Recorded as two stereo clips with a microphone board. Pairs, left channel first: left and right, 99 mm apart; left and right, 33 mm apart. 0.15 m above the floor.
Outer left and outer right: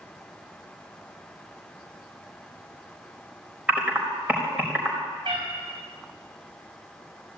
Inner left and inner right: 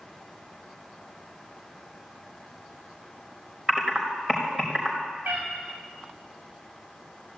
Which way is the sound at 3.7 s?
10° right (ahead or behind).